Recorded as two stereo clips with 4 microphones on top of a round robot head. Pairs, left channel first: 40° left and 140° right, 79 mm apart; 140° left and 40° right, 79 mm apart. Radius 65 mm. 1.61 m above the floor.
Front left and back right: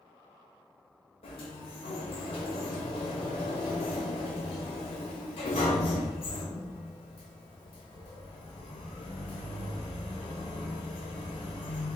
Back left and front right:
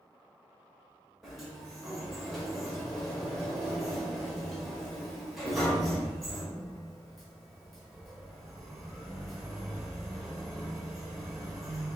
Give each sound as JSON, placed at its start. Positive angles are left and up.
{"t": 1.2, "sound": "a sliding door", "azimuth_deg": 50, "distance_m": 0.9}